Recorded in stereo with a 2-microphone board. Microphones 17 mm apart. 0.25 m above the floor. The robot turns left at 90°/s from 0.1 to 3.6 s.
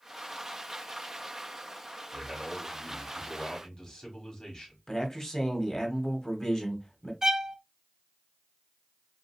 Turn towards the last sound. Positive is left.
turn(degrees=-30)  # may be behind; listen again after turning